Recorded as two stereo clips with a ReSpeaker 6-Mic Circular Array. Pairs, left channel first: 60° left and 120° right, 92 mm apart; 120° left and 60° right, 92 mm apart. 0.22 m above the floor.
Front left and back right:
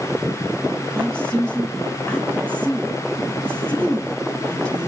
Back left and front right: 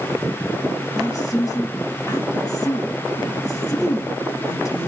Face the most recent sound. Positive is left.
turn(degrees=135)